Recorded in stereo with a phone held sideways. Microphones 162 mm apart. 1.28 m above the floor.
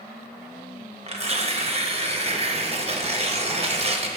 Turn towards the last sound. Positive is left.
turn(degrees=-40)  # may be behind; listen again after turning